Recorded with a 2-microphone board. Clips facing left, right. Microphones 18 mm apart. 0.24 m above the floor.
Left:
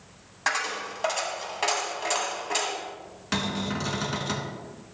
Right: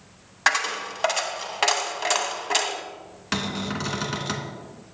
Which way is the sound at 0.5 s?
30° right (ahead or behind).